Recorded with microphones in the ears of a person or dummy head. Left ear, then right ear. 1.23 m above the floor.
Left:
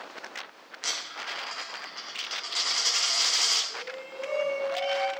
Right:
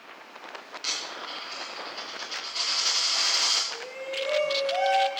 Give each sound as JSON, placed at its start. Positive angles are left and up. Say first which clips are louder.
{"t": 0.8, "sound": "a dropped coin", "louder": "even", "side_deg": 70, "distance_m": 3.0}
{"t": 3.7, "sound": "a shout", "louder": "right 4 dB", "side_deg": -40, "distance_m": 3.0}